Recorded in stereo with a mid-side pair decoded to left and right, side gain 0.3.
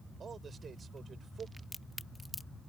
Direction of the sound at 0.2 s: 65° right.